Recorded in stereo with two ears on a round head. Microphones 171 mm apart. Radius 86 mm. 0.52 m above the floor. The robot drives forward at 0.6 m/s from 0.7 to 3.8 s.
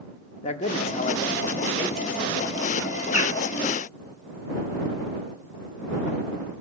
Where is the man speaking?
35° left (ahead or behind), 0.8 m; by 3.0 s 20° left (ahead or behind), 1.5 m.